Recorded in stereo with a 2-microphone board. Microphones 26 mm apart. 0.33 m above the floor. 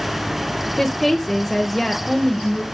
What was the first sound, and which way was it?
A woman speaking, 5° left (ahead or behind).